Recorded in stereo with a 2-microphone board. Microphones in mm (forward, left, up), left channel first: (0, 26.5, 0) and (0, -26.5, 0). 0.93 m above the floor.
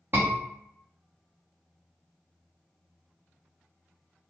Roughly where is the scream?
Right.